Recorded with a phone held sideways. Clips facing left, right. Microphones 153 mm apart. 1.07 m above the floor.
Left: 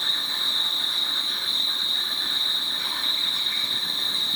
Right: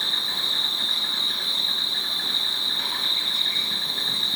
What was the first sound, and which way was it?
An insect, 85° right.